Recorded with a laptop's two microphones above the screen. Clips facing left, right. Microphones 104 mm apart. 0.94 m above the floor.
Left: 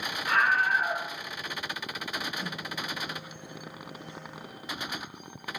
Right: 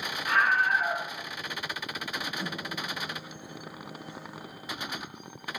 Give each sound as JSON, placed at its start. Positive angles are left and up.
{"t": 0.2, "sound": "a scream", "side_deg": -5, "distance_m": 5.0}
{"t": 2.4, "sound": "a microwave", "side_deg": -10, "distance_m": 0.5}